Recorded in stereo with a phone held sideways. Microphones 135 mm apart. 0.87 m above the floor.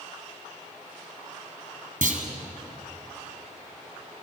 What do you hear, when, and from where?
2.0 s a clunk: 80° right, 3 m